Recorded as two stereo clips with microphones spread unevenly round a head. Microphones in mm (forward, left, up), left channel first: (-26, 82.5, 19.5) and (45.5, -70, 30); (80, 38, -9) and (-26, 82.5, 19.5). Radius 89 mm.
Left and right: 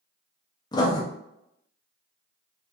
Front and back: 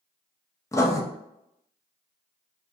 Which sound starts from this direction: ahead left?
Writing, at 0.7 s.